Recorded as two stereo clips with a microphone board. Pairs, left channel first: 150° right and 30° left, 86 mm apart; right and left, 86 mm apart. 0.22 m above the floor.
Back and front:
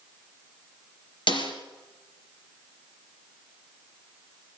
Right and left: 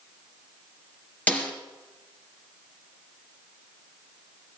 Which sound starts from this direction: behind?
A snare drum, at 1.3 s.